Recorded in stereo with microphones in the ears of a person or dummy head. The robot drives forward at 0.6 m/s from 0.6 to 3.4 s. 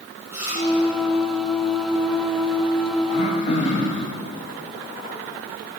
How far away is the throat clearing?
About 0.5 m.